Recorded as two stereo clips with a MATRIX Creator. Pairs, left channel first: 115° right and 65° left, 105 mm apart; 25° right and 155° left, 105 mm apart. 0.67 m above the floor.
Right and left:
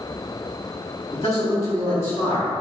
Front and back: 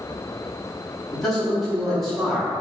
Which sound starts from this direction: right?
A man speaking, at 1.1 s.